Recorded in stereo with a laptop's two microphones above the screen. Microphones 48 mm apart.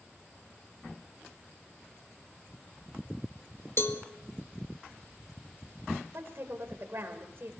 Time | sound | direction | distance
3.8 | a cowbell | 55° left (ahead or behind) | 1.8 m
6.1 | a woman speaking | 50° right (ahead or behind) | 5 m